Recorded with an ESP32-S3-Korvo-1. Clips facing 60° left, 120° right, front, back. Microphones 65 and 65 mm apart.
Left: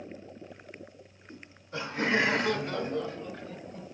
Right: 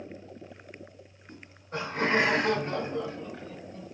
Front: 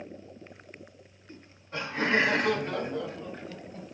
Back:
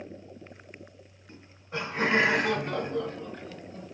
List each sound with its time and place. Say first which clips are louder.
1.3 s laughter: right 3 dB, back 2 dB; 105° right, 2.5 m; by 3.9 s 20° left, 1.3 m